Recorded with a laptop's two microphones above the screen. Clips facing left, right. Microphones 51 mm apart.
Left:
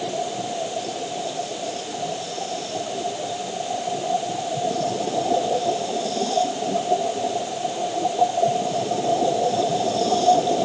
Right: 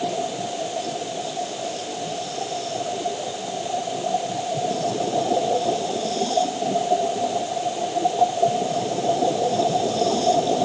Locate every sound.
Only background noise.